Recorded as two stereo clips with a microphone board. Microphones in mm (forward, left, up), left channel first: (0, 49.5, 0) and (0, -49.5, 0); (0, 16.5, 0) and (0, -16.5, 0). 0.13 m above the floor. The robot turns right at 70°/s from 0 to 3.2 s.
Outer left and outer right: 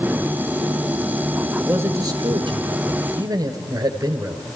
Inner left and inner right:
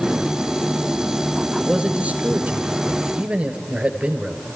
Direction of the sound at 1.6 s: 165° right.